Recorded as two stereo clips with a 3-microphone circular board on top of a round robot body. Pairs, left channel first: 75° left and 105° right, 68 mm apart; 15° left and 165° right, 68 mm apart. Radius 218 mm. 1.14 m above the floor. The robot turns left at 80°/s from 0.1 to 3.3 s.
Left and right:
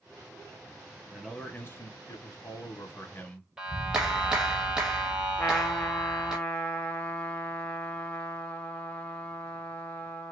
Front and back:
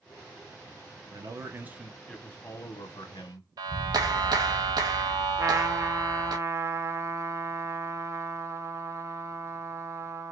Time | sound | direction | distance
1.1 | a man speaking | 175° left | 1.3 m
3.6 | a clap | 175° left | 0.7 m
5.4 | a trumpet | 145° left | 1.0 m